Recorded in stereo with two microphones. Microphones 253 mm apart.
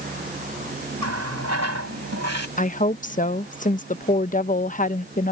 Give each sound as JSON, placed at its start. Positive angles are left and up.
{"t": 1.0, "sound": "a running tap", "side_deg": -85}
{"t": 2.6, "sound": "a woman speaking", "side_deg": 30}